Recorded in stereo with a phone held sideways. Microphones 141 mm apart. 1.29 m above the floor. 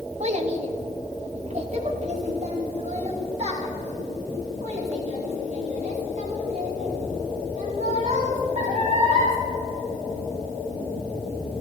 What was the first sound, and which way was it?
A child speaking, 55° right (ahead or behind).